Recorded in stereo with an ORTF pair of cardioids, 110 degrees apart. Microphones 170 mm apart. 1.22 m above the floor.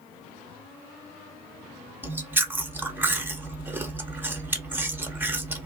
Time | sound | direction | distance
2.0 | chewing | 10° right | 0.6 m